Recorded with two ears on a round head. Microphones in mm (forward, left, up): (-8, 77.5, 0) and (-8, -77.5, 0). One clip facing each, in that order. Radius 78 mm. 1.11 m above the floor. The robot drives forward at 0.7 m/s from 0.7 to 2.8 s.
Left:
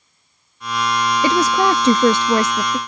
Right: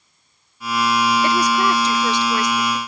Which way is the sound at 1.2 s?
70° left (ahead or behind).